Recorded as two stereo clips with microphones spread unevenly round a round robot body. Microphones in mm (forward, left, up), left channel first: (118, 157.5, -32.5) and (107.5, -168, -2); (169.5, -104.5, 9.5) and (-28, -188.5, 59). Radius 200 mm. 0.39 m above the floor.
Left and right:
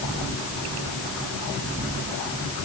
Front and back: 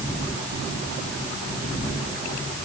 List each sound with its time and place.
Only background noise.